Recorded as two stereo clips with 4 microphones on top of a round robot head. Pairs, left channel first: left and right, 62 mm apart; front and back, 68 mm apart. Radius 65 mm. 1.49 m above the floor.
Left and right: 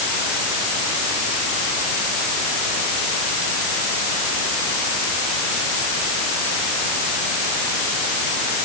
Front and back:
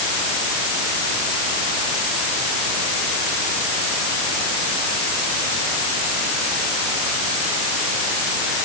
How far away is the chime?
No chime in this recording.